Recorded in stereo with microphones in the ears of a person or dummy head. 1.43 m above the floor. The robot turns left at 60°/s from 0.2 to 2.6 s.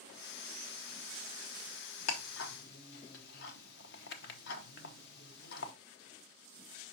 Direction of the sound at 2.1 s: 80° left.